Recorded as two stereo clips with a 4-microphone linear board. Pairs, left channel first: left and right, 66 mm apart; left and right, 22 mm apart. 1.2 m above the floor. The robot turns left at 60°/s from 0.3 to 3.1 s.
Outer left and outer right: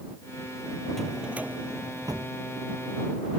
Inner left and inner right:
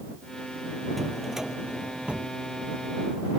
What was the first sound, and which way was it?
A drawer, 5° left.